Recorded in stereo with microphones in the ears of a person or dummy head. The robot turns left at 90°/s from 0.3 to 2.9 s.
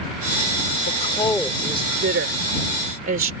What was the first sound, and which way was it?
A woman speaking, 50° left (ahead or behind).